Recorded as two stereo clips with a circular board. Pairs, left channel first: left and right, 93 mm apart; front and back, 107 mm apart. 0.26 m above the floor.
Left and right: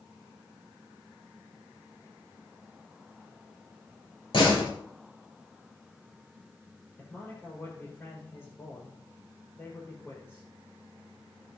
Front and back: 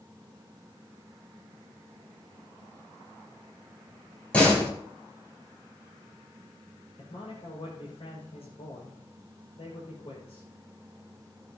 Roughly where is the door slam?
Left.